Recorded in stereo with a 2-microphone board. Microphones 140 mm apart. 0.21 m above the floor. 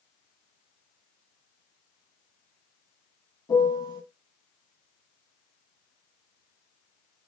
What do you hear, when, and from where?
3.5 s a piano: 30° left (ahead or behind), 0.7 m